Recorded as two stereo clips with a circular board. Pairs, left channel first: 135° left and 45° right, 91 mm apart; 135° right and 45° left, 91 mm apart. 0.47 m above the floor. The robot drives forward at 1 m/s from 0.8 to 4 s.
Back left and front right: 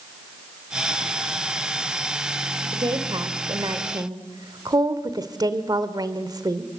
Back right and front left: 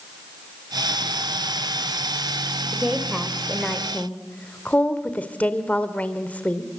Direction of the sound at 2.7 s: 35° right.